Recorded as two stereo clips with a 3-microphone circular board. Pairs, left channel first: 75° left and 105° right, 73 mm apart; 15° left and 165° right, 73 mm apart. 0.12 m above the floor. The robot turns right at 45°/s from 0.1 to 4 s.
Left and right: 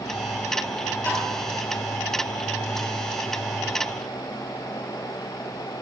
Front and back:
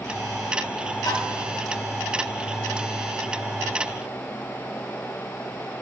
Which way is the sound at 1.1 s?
10° left.